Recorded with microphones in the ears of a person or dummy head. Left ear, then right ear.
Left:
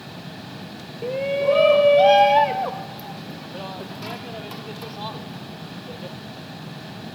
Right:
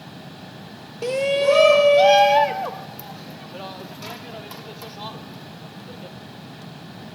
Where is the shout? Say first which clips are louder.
Right 2 dB; 55° right (ahead or behind); by 6.2 s 10° right (ahead or behind).